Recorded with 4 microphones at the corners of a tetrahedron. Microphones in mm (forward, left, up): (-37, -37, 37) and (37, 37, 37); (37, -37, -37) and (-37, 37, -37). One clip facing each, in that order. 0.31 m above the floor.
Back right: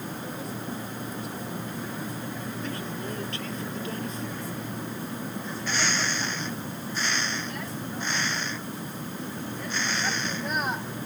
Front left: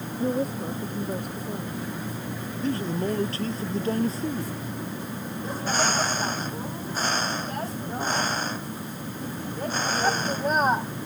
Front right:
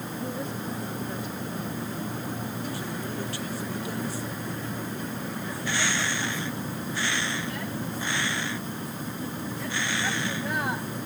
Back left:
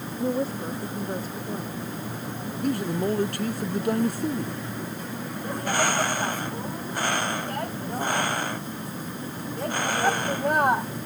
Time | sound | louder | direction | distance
0.2 | a woman speaking | front left 9 dB, back left 9 dB | 85° left | ?
2.6 | a man speaking | front left 12 dB, back left 8 dB | 100° left | ?
5.4 | a bird | front left 6 dB, back left 7 dB | 95° left | ?